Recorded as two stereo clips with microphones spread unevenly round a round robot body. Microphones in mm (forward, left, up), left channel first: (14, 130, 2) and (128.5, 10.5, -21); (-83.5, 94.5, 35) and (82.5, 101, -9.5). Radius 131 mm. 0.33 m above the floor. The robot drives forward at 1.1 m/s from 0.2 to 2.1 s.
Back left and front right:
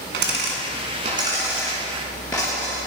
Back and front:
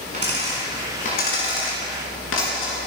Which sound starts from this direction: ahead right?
A dropped coin, at 0.1 s.